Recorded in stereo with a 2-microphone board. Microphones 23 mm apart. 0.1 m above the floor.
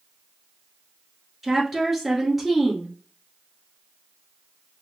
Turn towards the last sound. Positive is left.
turn(degrees=-10)  # may be behind; listen again after turning